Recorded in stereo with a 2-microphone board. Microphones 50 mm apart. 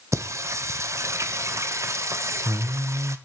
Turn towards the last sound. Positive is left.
turn(degrees=-80)